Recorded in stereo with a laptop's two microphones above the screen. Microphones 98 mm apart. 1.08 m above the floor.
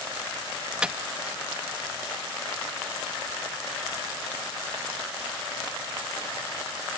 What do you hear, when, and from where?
0.8 s a microwave: 10° right (ahead or behind)